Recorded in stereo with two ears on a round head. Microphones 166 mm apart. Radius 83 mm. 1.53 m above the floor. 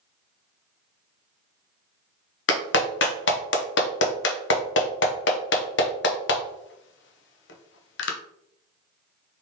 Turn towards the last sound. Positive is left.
turn(degrees=65)  # may be behind; listen again after turning